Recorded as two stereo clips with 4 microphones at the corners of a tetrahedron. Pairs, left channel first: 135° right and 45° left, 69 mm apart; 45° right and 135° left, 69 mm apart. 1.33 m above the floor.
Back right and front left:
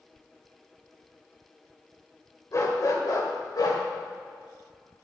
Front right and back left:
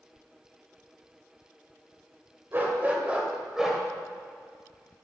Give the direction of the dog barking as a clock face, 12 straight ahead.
6 o'clock.